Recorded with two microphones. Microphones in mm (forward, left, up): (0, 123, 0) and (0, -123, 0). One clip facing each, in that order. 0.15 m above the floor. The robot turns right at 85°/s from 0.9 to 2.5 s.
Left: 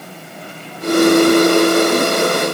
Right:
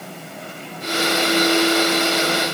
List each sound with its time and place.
Only background noise.